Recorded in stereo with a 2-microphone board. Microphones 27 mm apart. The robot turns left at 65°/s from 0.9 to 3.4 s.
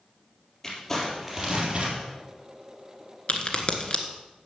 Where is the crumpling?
15° left, 3.5 m; by 2.0 s 55° right, 3.5 m.